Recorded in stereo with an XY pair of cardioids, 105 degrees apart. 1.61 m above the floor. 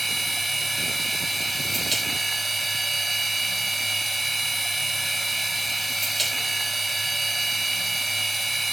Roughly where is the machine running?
Ahead.